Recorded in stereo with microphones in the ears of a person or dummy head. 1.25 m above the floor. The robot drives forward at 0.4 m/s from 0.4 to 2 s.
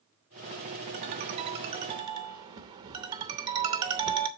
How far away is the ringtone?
About 0.5 m.